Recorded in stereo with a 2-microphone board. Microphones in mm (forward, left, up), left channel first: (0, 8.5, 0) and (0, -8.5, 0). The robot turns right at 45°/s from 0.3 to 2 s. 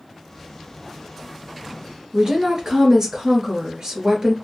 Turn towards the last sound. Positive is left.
turn(degrees=-40)  # may be behind; listen again after turning